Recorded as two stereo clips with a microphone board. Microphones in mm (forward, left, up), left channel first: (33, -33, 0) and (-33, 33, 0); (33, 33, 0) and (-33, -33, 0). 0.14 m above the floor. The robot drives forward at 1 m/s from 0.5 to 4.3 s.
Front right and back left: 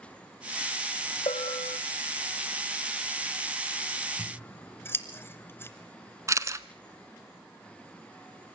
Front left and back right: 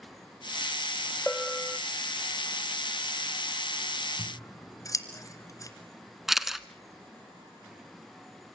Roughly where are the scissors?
Ahead.